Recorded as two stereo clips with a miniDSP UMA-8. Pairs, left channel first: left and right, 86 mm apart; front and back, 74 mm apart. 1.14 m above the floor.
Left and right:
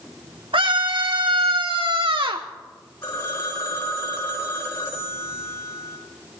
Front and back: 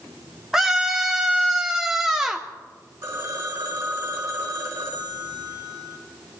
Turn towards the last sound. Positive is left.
turn(degrees=130)